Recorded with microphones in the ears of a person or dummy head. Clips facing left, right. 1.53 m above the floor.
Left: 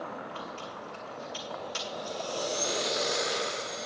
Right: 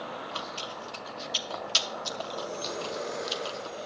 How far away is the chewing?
About 1.0 m.